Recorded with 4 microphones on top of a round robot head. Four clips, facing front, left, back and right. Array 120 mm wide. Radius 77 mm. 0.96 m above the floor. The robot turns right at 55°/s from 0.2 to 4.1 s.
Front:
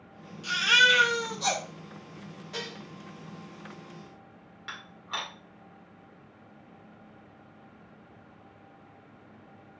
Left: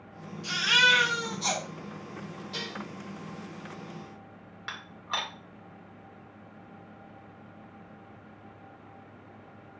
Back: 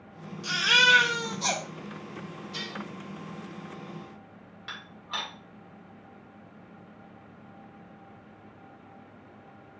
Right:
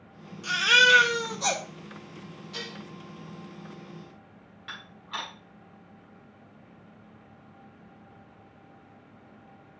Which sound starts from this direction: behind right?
A baby crying, at 0.4 s.